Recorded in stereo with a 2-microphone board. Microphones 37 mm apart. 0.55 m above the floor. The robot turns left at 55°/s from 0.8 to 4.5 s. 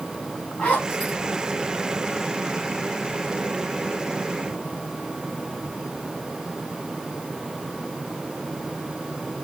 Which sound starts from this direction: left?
A zipper, at 0.6 s.